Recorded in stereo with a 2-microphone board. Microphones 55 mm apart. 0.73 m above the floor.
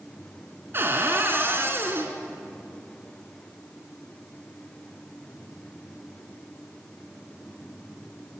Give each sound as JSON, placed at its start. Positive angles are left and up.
{"t": 0.7, "sound": "a cupboard door", "side_deg": -45, "distance_m": 3.0}